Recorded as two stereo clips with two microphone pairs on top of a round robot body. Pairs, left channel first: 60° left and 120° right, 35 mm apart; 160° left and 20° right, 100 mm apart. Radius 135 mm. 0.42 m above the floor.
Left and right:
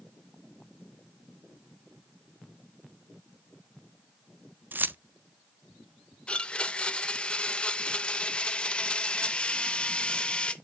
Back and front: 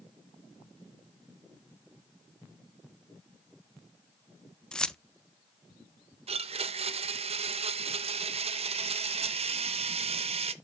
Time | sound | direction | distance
4.7 | keys jangling | 115° right | 0.5 m
6.3 | a blender | straight ahead | 0.6 m